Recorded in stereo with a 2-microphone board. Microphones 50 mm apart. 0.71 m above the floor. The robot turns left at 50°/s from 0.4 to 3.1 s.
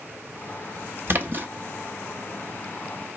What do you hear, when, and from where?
1.1 s a splash: 50° right (ahead or behind), 0.7 m; by 1.5 s 40° right (ahead or behind), 0.7 m